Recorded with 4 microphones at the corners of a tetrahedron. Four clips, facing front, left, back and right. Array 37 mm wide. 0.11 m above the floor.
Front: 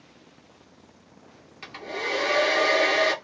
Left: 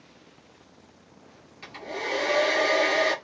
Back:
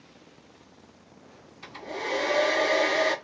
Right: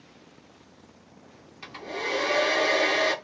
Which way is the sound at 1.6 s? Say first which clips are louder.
Right 1 dB, front 3 dB; straight ahead.